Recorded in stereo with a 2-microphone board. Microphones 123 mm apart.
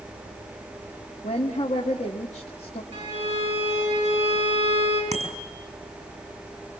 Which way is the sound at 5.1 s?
65° right (ahead or behind).